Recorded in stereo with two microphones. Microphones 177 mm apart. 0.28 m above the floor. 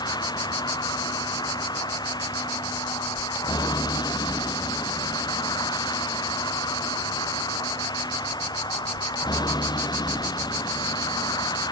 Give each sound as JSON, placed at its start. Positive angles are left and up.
{"t": 0.0, "sound": "a vehicle", "side_deg": 25}